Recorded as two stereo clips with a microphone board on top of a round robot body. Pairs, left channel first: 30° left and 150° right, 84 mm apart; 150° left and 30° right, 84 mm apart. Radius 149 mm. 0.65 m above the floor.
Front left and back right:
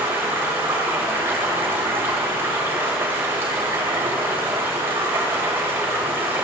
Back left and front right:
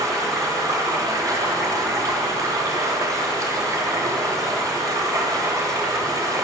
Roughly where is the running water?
Right.